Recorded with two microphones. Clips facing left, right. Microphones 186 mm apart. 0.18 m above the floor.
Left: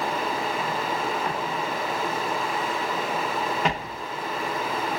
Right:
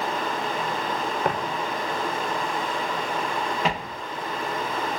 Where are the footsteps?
55° right (ahead or behind), 0.8 m; by 3.9 s centre (ahead or behind), 1.6 m.